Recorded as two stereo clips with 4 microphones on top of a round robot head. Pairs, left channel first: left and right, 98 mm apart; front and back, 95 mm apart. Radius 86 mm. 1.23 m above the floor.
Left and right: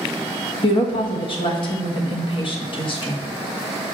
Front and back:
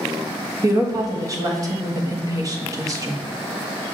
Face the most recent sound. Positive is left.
turn(degrees=125)